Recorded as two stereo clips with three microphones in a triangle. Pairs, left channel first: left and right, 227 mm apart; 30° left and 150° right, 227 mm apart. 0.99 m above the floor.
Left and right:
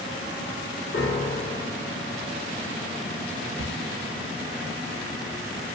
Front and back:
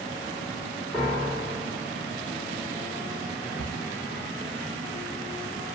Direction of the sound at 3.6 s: 80° left.